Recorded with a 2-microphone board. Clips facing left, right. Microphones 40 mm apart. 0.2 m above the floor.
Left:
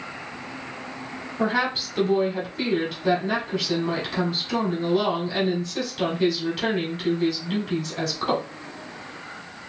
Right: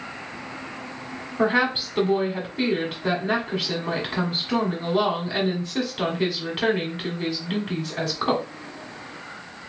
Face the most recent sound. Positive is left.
turn(degrees=-20)  # may be behind; listen again after turning